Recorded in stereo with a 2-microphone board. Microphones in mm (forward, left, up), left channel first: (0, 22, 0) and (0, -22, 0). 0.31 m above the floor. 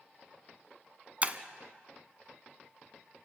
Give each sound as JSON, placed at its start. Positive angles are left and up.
{"t": 1.2, "sound": "breaking glass", "side_deg": -35, "distance_m": 0.9}